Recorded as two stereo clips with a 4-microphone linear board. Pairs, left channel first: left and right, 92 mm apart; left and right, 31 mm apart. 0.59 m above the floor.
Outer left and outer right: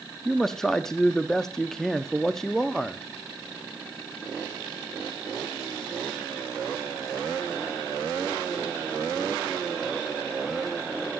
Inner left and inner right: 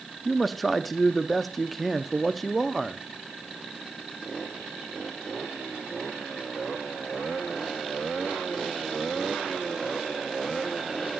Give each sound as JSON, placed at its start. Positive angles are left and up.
{"t": 0.2, "sound": "a man speaking", "side_deg": 5, "distance_m": 0.6}